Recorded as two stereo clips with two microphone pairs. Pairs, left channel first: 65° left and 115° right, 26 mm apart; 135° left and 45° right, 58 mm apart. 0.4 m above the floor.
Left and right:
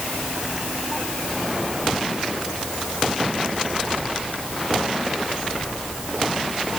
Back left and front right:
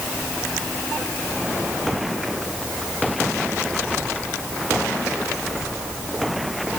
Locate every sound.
Only background noise.